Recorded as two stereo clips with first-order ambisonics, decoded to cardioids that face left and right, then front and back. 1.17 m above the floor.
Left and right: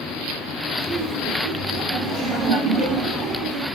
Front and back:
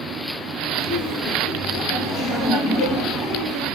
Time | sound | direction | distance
0.8 | laughter | straight ahead | 0.9 m